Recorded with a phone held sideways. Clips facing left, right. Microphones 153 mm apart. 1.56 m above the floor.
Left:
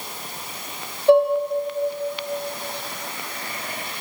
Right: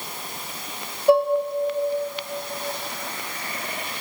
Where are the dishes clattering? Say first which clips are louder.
Left 2 dB; 10° right (ahead or behind), 1.5 m.